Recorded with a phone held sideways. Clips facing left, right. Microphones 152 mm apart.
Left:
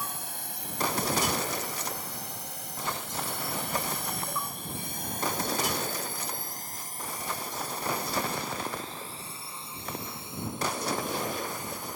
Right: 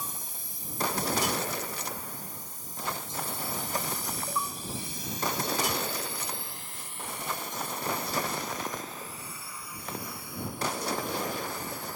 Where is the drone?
65° left (ahead or behind); by 12.0 s 20° left (ahead or behind).